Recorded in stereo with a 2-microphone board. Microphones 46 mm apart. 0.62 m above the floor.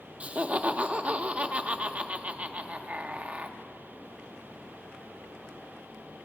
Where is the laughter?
30° right (ahead or behind), 0.7 m.